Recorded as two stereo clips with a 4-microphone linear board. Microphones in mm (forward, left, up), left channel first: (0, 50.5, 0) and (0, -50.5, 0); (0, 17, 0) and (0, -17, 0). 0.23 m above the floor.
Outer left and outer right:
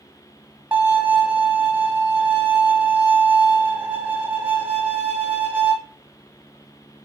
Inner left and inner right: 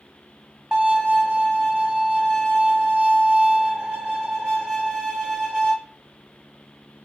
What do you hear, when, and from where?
0.7 s a violin: 20° right (ahead or behind), 1.2 m